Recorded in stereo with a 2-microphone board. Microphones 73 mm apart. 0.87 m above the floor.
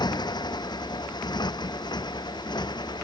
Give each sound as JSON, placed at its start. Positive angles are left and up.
{"t": 0.0, "sound": "a motorcycle", "side_deg": 75}